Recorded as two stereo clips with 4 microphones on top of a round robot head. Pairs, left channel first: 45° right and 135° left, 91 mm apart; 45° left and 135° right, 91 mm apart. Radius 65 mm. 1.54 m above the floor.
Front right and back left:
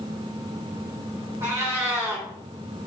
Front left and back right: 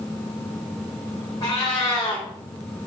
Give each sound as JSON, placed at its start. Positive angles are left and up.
{"t": 1.4, "sound": "a cat meowing", "azimuth_deg": 80, "distance_m": 0.8}